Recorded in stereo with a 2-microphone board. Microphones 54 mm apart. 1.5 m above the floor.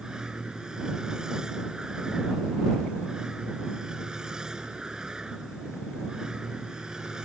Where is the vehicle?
15° right (ahead or behind).